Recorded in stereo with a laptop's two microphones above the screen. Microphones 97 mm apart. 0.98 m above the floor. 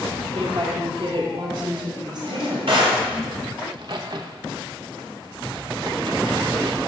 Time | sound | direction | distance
0.3 | a woman speaking | 70° right (ahead or behind) | 1.7 m
2.2 | a drawer | 65° right (ahead or behind) | 2.5 m
3.6 | a crack | 50° right (ahead or behind) | 0.7 m